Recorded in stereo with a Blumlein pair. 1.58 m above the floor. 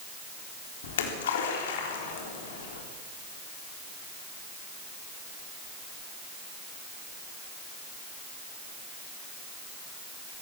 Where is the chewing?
No chewing in this recording.